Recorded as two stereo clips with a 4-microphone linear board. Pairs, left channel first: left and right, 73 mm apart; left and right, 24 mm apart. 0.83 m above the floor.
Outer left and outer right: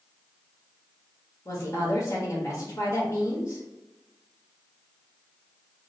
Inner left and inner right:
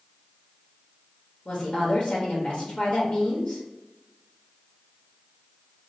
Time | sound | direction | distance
1.4 | a woman speaking | 45° left (ahead or behind) | 1.0 m